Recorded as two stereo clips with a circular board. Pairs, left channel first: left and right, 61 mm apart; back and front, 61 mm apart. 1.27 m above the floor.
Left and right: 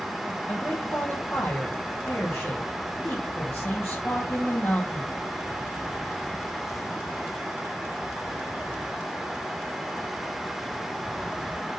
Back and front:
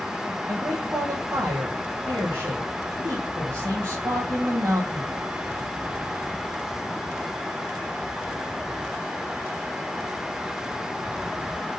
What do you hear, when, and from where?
0.5 s a man speaking: 30° left, 2.5 m